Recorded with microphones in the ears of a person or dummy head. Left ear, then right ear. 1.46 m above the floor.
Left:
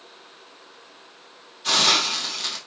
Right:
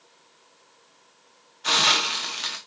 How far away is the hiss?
About 1.1 m.